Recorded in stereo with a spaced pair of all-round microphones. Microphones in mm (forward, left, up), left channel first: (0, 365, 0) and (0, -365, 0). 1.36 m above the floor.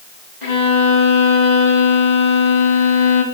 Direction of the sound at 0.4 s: 70° left (ahead or behind).